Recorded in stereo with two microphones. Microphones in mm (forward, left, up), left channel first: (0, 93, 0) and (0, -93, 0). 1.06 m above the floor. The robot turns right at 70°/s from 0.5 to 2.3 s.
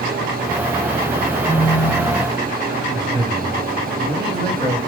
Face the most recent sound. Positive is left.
turn(degrees=25)  # may be behind; listen again after turning